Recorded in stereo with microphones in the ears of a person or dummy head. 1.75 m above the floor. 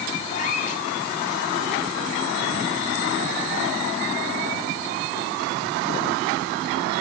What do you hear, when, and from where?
0.3 s a cat meowing: 45° left (ahead or behind), 4.5 m